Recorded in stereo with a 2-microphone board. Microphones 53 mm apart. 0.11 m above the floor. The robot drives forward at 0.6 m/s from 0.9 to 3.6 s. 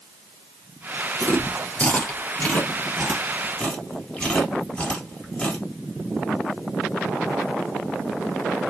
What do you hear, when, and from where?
1.2 s chewing: 30° left (ahead or behind), 2 m; by 5.6 s 20° left (ahead or behind), 3 m